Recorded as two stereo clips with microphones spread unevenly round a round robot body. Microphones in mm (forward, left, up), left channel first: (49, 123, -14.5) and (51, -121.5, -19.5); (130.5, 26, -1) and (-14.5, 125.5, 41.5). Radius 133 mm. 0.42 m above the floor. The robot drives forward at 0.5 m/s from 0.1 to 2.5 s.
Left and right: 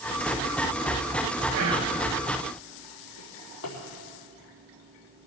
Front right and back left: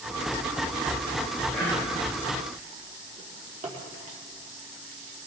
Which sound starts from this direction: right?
Whispering, at 1.5 s.